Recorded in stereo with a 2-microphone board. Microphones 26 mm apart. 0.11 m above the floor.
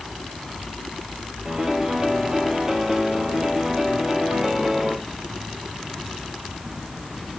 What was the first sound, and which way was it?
A piano, 25° right (ahead or behind).